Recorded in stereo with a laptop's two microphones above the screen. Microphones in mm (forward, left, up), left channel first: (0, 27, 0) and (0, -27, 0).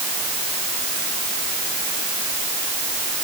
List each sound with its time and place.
Only background noise.